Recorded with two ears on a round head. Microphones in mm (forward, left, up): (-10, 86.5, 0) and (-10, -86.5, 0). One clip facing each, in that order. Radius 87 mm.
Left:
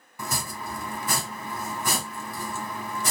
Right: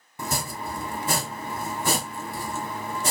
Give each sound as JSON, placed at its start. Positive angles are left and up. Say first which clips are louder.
{"t": 0.2, "sound": "chopping", "louder": "right 3 dB", "side_deg": -25, "distance_m": 0.6}